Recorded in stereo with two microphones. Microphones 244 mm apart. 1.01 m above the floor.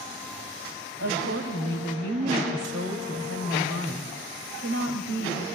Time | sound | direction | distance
1.0 | a woman speaking | 80° right | 5 m